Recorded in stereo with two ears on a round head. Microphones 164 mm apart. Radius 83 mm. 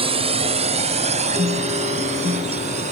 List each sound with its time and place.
0.0 s a drone: 30° right (ahead or behind); by 2.9 s 40° right (ahead or behind)
1.4 s a guitar: 35° right (ahead or behind)